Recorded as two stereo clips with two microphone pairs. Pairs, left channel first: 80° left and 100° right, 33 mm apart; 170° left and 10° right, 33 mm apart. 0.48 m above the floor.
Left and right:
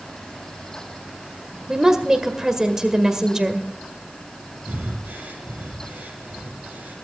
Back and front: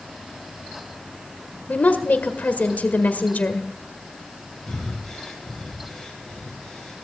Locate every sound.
1.7 s a woman speaking: 170° right, 1.6 m
4.7 s breathing: 105° right, 5 m